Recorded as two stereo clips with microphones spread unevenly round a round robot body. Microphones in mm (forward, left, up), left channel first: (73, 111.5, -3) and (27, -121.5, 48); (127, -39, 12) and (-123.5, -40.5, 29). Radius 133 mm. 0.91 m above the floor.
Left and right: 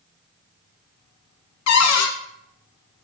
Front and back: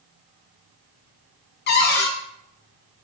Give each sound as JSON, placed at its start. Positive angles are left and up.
{"t": 1.7, "sound": "a cupboard door", "azimuth_deg": 55, "distance_m": 0.5}